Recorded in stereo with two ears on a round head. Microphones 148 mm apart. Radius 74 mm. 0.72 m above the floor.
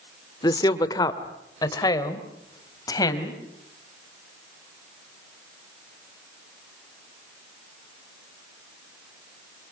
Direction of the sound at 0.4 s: 25° left (ahead or behind).